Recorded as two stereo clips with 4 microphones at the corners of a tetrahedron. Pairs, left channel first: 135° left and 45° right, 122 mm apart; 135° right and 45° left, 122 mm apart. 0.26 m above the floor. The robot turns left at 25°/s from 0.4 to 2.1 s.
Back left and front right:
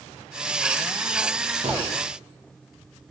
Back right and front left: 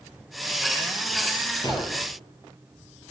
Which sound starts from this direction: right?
A gunshot, at 1.6 s.